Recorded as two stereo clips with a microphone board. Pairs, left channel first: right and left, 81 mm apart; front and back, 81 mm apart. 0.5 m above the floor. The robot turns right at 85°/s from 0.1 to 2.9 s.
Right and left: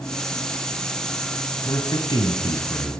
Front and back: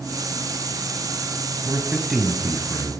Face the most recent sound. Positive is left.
turn(degrees=-30)